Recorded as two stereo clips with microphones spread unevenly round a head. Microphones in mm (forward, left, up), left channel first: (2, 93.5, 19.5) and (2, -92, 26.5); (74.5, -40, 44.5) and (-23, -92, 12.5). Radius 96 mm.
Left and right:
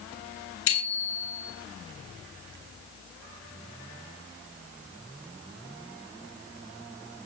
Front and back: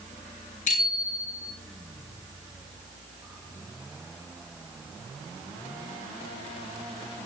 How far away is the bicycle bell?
About 9 m.